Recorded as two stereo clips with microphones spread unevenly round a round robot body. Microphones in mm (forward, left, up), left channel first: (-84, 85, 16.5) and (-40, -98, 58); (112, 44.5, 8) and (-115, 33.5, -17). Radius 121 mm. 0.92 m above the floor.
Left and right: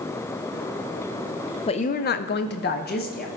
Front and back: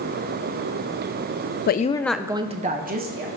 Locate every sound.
1.7 s a woman speaking: 50° left, 0.5 m; by 3.3 s 140° left, 1.3 m